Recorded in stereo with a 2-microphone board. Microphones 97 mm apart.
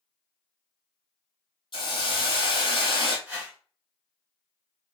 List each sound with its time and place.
1.7 s a hiss: 55° left (ahead or behind), 1.2 m
3.3 s a whoosh: 15° right (ahead or behind), 0.9 m